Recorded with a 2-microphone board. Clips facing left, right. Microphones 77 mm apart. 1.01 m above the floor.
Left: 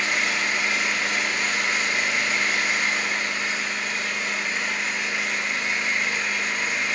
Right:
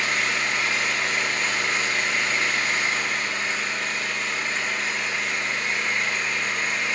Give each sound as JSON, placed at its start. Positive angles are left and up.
{"t": 0.0, "sound": "an engine running", "side_deg": 10, "distance_m": 1.5}